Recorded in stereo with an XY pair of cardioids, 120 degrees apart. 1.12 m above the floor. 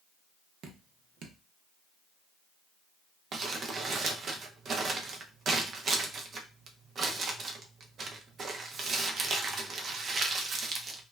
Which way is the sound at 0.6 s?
60° right.